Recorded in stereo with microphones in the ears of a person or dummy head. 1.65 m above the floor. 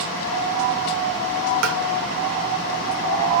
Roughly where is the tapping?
Right.